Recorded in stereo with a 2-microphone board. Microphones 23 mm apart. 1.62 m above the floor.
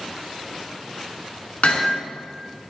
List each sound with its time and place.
1.6 s hammering: 75° left (ahead or behind), 6.5 m